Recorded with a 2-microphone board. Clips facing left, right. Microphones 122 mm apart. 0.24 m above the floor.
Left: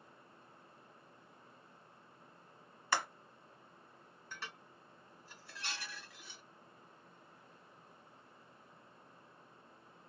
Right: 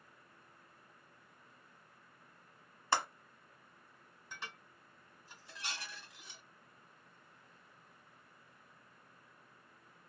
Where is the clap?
30° right (ahead or behind), 1.2 m.